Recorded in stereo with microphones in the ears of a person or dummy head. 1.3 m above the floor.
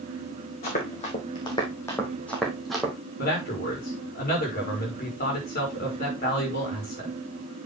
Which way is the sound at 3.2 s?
40° left (ahead or behind).